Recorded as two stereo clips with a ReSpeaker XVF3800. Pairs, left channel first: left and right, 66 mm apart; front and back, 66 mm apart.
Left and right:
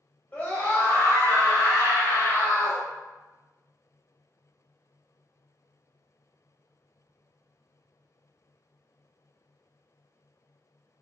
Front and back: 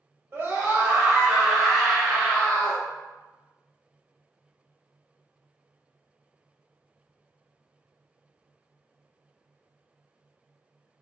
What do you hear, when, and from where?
0.3 s a scream: 145° left, 1.4 m; by 2.8 s 70° left, 1.9 m